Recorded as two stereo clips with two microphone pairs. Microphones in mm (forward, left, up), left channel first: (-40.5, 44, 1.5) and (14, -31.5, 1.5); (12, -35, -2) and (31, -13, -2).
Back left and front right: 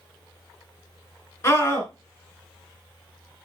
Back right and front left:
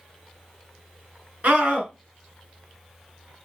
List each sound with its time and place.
1.4 s a scream: 70° left, 3.5 m